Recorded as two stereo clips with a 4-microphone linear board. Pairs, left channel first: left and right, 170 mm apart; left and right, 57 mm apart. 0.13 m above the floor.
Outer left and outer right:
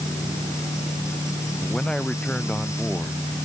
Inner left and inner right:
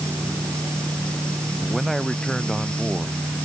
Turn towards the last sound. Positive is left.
turn(degrees=5)  # may be behind; listen again after turning